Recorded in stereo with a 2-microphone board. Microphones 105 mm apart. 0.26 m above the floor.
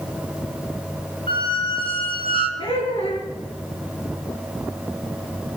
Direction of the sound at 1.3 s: 60° left (ahead or behind).